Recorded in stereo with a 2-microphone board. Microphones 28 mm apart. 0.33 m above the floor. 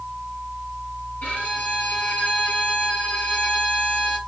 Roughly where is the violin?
Left.